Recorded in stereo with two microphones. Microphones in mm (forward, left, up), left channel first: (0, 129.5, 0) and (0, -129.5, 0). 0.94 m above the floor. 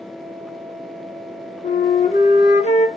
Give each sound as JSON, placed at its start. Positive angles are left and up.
{"t": 1.6, "sound": "a flute", "side_deg": 25, "distance_m": 0.6}